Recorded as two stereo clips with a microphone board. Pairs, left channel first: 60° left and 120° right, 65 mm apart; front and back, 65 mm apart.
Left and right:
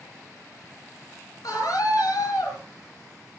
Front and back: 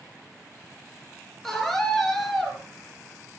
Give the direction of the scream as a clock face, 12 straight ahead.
9 o'clock.